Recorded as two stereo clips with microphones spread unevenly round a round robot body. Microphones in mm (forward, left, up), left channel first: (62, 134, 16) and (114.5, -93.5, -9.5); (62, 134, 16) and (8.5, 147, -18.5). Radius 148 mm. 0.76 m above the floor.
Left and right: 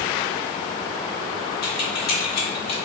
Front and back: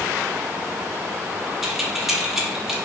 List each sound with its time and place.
1.6 s keys jangling: 100° left, 1.0 m